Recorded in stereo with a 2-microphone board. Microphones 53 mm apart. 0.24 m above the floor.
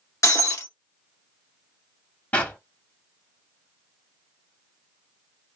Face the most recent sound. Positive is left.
turn(degrees=25)  # may be behind; listen again after turning